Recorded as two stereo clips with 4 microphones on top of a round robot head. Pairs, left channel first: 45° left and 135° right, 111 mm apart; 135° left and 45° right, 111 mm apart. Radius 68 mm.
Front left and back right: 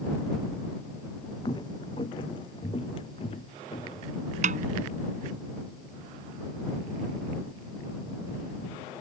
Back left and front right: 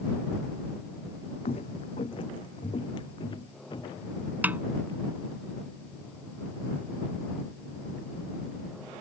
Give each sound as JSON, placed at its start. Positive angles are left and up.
{"t": 1.4, "sound": "footsteps", "azimuth_deg": 100}
{"t": 4.4, "sound": "a snare drum", "azimuth_deg": -120}